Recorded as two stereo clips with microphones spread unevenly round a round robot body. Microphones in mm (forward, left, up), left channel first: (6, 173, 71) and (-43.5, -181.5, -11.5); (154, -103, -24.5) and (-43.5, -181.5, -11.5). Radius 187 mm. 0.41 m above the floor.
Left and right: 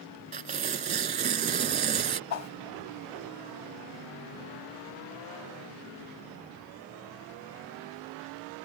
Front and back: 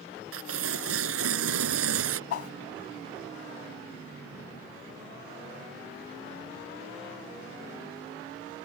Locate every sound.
0.3 s tearing paper: 165° right
2.3 s a whoosh: 35° left